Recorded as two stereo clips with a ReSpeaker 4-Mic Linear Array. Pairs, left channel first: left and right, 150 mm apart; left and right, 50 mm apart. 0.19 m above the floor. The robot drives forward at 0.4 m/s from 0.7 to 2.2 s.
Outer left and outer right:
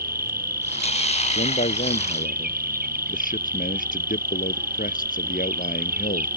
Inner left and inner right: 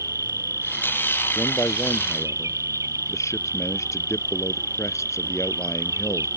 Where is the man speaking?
65° left (ahead or behind); by 6.3 s 70° left (ahead or behind).